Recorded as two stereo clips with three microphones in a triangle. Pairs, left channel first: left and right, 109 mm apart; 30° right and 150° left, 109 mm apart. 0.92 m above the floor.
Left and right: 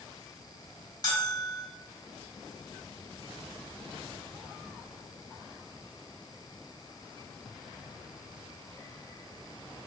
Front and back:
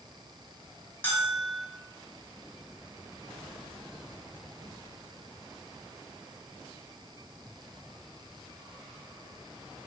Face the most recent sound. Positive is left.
turn(degrees=40)